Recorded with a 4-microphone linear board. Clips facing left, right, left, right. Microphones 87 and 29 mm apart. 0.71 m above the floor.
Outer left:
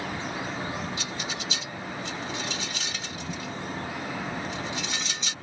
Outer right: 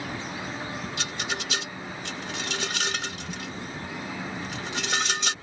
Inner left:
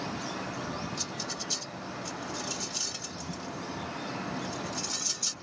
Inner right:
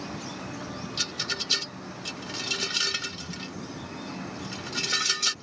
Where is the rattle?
65° right (ahead or behind).